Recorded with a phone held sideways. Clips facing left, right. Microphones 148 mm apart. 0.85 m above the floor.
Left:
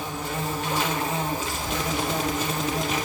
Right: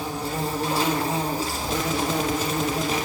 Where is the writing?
35° right (ahead or behind), 2 m.